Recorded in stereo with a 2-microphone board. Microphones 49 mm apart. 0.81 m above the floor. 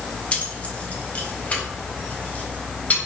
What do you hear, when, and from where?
0.3 s keys jangling: 30° left (ahead or behind), 1.9 m; by 3.0 s 35° left (ahead or behind), 3.5 m